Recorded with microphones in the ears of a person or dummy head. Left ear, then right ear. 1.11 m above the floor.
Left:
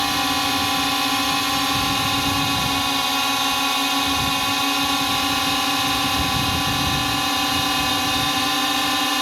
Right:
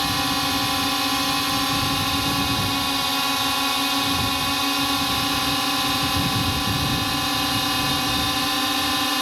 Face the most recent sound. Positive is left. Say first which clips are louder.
# left 2 dB
turn(degrees=20)  # may be behind; listen again after turning